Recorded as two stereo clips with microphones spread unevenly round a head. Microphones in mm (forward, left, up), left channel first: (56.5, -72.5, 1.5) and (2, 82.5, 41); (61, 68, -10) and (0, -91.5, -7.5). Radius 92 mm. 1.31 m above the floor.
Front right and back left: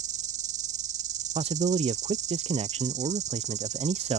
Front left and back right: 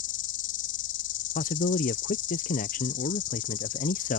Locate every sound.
0.0 s an insect: 70° left
1.4 s a man speaking: 50° left